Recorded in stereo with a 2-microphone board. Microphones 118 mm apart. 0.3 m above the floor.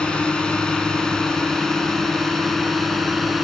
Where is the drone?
10° left (ahead or behind); by 3.4 s centre (ahead or behind).